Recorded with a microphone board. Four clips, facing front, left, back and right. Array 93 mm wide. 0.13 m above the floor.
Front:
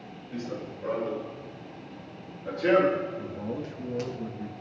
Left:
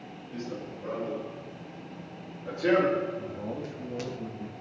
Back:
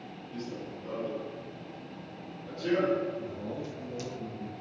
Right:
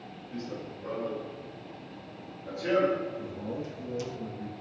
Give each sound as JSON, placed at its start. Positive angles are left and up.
{"t": 0.3, "sound": "running footsteps", "azimuth_deg": 0, "distance_m": 3.0}
{"t": 3.2, "sound": "a man speaking", "azimuth_deg": 5, "distance_m": 2.0}